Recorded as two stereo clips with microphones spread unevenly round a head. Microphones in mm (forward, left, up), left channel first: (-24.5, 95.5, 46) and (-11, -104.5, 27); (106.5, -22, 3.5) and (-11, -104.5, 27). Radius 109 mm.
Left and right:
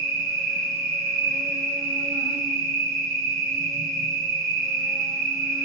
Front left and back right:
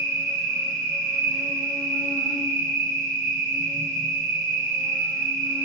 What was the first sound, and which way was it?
An insect, 135° right.